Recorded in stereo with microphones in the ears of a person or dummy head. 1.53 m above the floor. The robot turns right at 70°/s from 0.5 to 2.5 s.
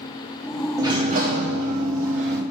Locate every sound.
0.8 s a sliding door: 170° right, 1.2 m; by 2.4 s 55° right, 1.2 m